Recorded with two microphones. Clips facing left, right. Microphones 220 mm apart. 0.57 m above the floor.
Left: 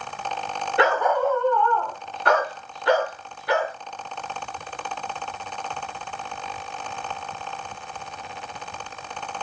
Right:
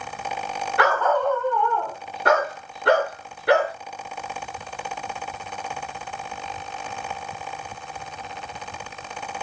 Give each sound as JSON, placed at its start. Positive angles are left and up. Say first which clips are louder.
{"t": 0.8, "sound": "a dog barking", "louder": "left 1 dB", "side_deg": 25, "distance_m": 1.1}